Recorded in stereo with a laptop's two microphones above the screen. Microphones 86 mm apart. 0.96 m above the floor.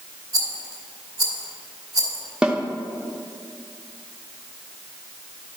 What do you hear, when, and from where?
0.3 s a rattle: 45° right (ahead or behind), 1.4 m
2.4 s a snare drum: 10° right (ahead or behind), 0.8 m